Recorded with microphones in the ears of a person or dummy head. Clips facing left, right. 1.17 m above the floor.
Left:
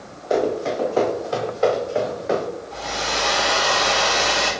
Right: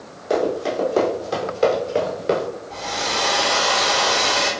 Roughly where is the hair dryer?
Right.